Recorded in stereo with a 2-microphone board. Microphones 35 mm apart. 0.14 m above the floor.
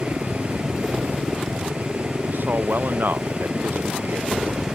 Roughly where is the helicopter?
Right.